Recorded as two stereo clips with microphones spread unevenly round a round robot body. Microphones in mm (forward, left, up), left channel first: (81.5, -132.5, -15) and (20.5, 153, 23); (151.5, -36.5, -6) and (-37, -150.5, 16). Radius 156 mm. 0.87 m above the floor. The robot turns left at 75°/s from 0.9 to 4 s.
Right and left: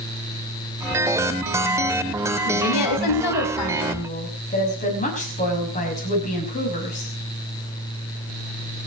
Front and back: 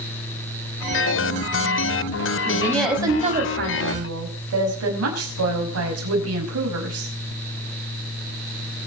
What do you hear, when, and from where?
2.5 s a woman speaking: 30° right, 5.5 m; by 7.1 s 145° right, 5.5 m